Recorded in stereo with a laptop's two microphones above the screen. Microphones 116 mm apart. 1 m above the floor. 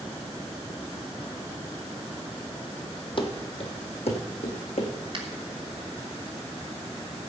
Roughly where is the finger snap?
Right.